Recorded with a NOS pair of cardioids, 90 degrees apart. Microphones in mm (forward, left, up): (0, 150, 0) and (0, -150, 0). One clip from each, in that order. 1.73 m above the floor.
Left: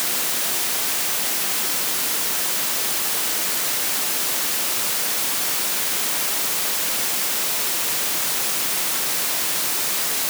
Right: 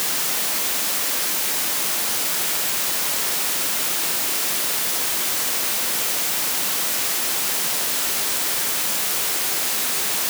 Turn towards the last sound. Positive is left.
No sound to turn to.